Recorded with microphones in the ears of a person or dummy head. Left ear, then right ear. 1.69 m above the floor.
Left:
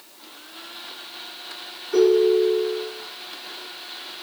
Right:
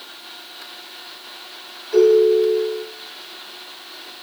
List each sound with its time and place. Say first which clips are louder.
1.9 s a ringtone: right 4 dB; 30° right (ahead or behind), 1.8 m